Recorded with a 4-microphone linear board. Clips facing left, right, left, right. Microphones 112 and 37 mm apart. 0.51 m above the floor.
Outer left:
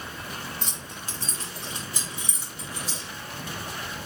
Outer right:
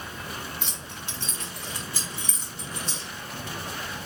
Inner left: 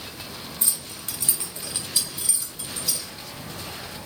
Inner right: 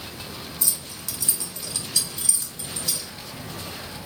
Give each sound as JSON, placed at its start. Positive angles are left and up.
{"t": 0.6, "sound": "keys jangling", "side_deg": 40, "distance_m": 1.0}